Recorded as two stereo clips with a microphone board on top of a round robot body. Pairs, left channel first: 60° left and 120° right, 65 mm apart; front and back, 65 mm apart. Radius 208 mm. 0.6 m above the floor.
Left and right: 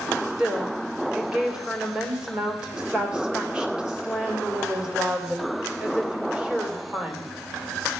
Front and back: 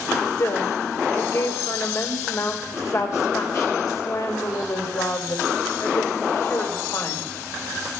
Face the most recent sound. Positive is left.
turn(degrees=-45)